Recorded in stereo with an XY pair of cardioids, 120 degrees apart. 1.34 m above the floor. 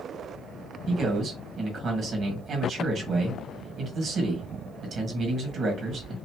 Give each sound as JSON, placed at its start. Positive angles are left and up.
{"t": 0.9, "sound": "a man speaking", "azimuth_deg": -45, "distance_m": 1.7}